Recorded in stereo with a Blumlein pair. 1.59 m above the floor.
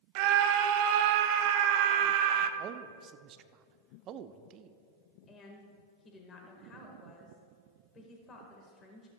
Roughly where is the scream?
Ahead right.